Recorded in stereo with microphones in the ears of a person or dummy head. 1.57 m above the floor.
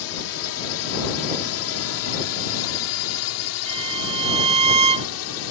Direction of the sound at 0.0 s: 75° left (ahead or behind).